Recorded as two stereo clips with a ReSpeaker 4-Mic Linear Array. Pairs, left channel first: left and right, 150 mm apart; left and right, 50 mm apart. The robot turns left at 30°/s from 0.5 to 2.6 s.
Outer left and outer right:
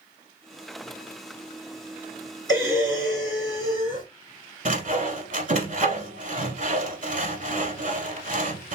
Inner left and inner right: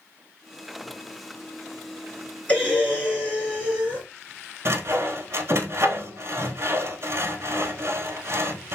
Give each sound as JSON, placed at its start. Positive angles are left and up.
{"t": 2.5, "sound": "breathing", "side_deg": 25, "distance_m": 2.0}
{"t": 4.7, "sound": "sawing", "side_deg": -55, "distance_m": 0.8}